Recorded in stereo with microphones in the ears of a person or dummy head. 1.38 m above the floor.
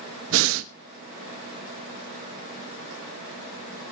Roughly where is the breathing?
Right.